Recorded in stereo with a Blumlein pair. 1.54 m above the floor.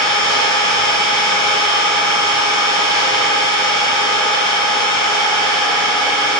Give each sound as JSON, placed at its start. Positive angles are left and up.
{"t": 0.0, "sound": "an engine running", "azimuth_deg": 0, "distance_m": 0.9}